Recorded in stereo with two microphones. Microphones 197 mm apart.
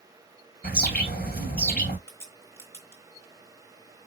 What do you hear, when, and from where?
0.6 s a bird: 55° left (ahead or behind), 2 m
2.1 s a crack: 15° left (ahead or behind), 2 m